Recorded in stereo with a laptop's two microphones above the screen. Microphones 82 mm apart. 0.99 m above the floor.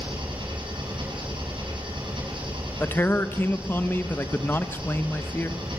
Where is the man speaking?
25° left (ahead or behind), 1.1 m.